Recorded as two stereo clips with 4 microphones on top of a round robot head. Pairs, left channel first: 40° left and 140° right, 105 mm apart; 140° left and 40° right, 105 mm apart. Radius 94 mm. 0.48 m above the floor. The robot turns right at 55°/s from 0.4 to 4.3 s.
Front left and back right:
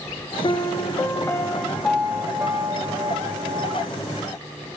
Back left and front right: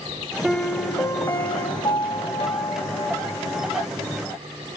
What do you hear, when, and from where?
0.4 s a piano: 45° left, 0.7 m; by 3.9 s 125° right, 0.7 m